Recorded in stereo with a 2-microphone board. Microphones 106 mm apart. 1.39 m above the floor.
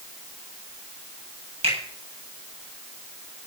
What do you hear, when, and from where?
1.6 s a finger snap: 65° right (ahead or behind), 8.5 m